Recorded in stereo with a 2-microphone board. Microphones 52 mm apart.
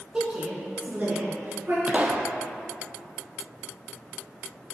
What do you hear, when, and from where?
0.1 s a woman speaking: 15° right (ahead or behind), 1.4 m; by 1.8 s 45° right (ahead or behind), 2.5 m
1.9 s a pop: 25° right (ahead or behind), 0.7 m